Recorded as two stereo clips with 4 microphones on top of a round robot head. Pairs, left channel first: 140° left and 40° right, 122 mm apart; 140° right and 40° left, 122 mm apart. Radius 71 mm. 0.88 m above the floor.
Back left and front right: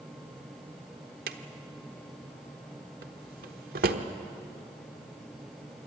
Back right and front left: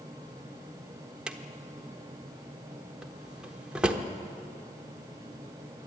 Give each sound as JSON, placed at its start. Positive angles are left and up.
{"t": 1.3, "sound": "a drawer", "azimuth_deg": -45, "distance_m": 1.1}